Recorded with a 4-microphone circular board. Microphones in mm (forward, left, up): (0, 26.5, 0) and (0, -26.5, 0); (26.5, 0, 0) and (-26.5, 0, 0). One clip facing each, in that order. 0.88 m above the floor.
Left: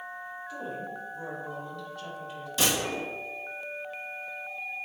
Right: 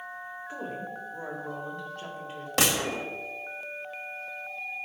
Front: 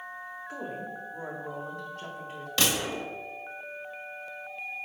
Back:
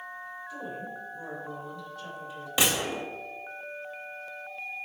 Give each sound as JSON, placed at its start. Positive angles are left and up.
{"t": 0.5, "sound": "a woman speaking", "azimuth_deg": -30, "distance_m": 1.9}
{"t": 2.6, "sound": "a gunshot", "azimuth_deg": -110, "distance_m": 1.4}